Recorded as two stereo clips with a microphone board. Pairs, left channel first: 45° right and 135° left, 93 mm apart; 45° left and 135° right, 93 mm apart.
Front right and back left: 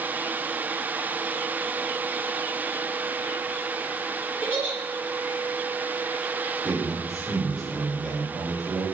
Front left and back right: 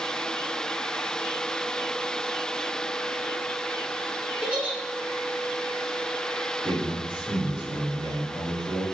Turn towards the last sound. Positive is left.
turn(degrees=-130)